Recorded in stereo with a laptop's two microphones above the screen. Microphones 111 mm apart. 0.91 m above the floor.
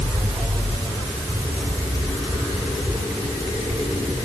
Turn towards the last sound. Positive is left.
No sound to turn to.